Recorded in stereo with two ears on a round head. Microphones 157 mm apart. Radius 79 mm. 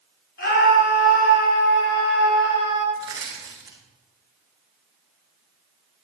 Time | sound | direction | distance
0.4 | a scream | 65° left (ahead or behind) | 7.5 m
3.0 | crushing | 25° right (ahead or behind) | 7 m